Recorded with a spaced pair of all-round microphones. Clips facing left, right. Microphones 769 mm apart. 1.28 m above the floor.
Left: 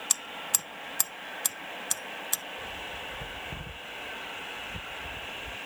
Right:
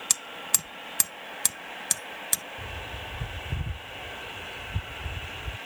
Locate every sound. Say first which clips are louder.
0.1 s hammering: right 1 dB; 55° right (ahead or behind)
2.6 s a bird: right 1 dB; 55° right (ahead or behind)